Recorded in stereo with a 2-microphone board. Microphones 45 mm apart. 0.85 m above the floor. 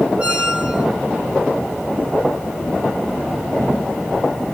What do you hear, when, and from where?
0.2 s a squeak: 25° right (ahead or behind), 0.7 m